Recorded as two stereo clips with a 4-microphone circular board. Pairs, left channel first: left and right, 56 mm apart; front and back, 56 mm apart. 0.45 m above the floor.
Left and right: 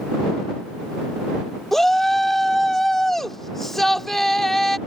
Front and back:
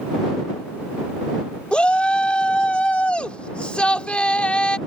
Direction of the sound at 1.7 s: 15° left.